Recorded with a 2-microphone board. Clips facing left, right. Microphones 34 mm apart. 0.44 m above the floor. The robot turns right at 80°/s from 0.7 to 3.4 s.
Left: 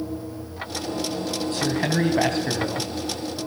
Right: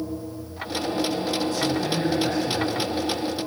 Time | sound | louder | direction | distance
1.5 | a man speaking | left 1 dB | 55° left | 3.5 m